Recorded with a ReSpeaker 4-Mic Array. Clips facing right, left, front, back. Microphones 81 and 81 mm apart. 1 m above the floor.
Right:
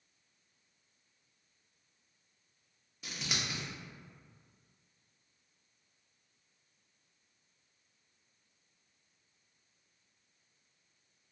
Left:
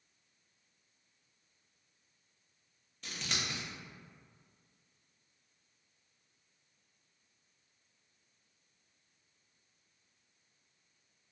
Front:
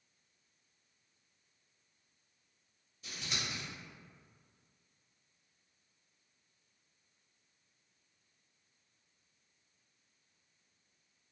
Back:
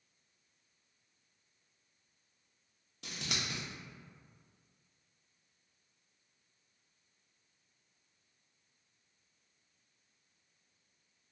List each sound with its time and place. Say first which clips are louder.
3.0 s scissors: even, back 1 dB; 170° right, 0.6 m